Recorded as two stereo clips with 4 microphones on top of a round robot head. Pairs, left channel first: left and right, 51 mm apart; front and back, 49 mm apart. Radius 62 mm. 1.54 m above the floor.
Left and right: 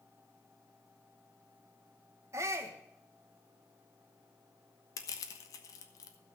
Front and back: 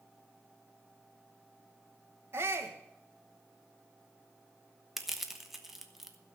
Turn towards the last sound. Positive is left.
turn(degrees=100)